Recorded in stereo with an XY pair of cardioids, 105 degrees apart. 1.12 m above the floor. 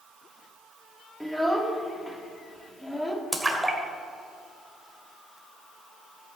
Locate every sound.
1.2 s a child speaking: straight ahead, 2 m
3.3 s a splash: 10° right, 2.5 m